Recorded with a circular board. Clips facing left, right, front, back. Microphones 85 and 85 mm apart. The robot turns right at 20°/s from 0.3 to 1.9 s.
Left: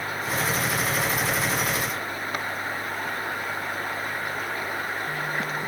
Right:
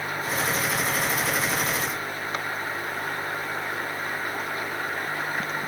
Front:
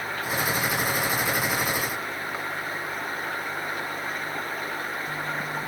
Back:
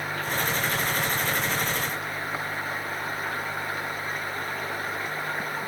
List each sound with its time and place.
Only background noise.